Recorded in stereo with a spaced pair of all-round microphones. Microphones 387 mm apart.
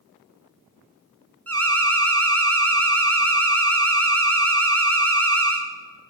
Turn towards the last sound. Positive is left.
turn(degrees=-40)  # may be behind; listen again after turning